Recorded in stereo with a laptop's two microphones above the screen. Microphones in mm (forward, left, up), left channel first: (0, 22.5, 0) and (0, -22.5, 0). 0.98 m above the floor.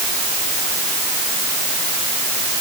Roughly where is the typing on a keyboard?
I don't hear typing on a keyboard.